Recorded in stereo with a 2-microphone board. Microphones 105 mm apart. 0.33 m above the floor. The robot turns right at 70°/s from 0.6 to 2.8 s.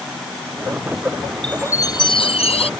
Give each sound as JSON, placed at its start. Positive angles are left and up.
{"t": 1.4, "sound": "a chime", "azimuth_deg": 10}